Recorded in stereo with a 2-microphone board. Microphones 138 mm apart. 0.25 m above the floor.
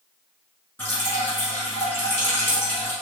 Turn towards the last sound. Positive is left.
turn(degrees=15)  # may be behind; listen again after turning